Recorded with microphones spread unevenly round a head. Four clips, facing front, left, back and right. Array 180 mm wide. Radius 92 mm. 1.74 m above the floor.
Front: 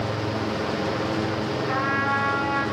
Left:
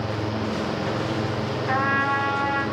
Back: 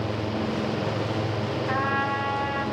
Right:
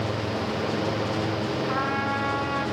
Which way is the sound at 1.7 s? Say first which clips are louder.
Left 3 dB, front 1 dB; 80° left.